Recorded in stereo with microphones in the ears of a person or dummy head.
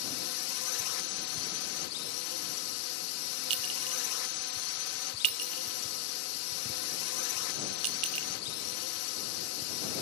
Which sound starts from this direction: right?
A clink, at 3.5 s.